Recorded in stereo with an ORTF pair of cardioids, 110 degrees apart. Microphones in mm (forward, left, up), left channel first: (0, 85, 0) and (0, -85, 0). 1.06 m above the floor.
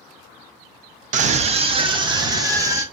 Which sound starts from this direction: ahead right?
A scream, at 1.1 s.